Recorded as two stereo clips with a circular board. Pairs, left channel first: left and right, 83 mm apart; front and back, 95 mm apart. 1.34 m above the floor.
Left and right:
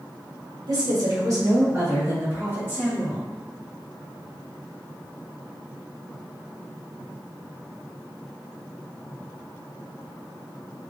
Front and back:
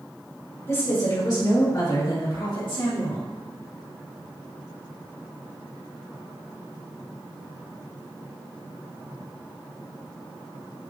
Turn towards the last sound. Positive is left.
turn(degrees=-15)